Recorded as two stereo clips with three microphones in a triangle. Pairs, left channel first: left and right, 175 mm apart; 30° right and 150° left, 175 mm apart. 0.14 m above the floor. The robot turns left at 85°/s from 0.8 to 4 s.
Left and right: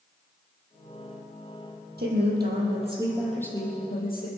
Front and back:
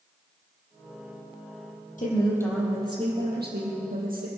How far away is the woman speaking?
About 4.5 m.